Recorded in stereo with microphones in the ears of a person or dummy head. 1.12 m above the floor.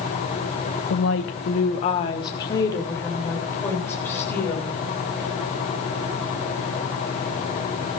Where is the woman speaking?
80° left, 1.1 m; by 4.7 s 5° left (ahead or behind), 5.5 m.